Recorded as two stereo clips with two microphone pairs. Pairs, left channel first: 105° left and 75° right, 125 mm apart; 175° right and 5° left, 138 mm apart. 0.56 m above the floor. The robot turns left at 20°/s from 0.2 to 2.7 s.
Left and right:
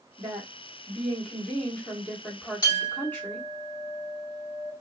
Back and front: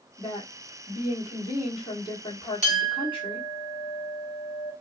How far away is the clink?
About 1.8 m.